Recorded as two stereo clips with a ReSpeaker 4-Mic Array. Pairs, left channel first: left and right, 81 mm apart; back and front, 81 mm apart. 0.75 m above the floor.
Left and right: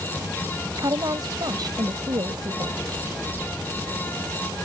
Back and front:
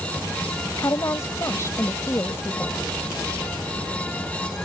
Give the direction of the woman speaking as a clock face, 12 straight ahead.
4 o'clock.